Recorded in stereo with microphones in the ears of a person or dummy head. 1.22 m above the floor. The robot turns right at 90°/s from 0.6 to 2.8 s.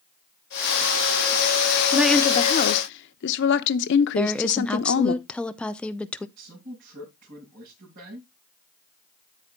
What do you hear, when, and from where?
1.9 s a woman speaking: 10° right, 1.0 m; by 5.2 s 70° left, 1.0 m
4.2 s a woman speaking: 5° left (ahead or behind), 0.6 m
6.4 s a man speaking: 45° right (ahead or behind), 7.5 m